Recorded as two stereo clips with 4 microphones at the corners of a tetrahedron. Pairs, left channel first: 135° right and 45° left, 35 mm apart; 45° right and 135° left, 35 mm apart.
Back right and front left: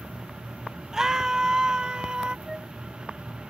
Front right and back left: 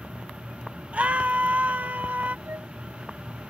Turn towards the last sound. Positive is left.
turn(degrees=125)